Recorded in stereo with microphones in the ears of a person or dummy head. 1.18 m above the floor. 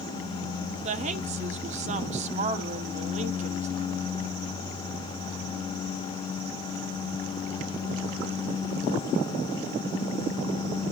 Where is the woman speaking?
45° right (ahead or behind), 0.9 m.